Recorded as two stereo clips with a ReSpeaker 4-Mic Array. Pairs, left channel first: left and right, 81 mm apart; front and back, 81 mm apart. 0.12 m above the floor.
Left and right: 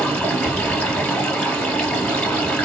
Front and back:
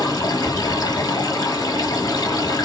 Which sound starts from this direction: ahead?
Running water, at 0.0 s.